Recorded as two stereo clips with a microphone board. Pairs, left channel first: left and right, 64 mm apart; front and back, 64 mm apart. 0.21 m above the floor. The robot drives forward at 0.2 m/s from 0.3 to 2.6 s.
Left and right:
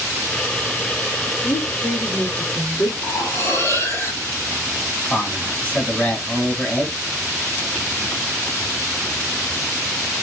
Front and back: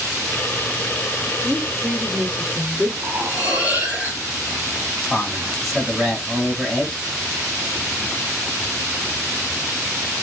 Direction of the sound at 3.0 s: 115° left.